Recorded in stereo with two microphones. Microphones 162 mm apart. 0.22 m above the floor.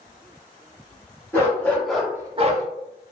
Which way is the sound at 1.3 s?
15° left (ahead or behind).